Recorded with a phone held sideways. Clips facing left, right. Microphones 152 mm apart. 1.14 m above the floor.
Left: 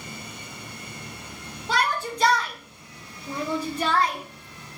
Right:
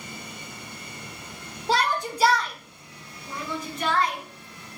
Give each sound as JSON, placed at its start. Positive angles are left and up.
{"t": 1.7, "sound": "a shout", "side_deg": -30, "distance_m": 0.6}